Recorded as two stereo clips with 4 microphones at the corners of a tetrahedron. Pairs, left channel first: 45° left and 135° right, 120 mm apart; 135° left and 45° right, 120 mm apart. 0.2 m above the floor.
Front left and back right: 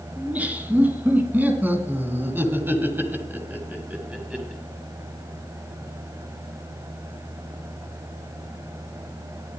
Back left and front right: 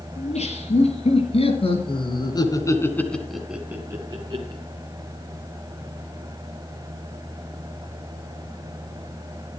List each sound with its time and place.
0.2 s laughter: 150° left, 4.5 m; by 4.6 s 55° right, 2 m